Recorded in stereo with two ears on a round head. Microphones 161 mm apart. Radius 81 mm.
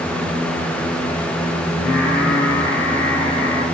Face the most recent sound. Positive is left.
turn(degrees=75)  # may be behind; listen again after turning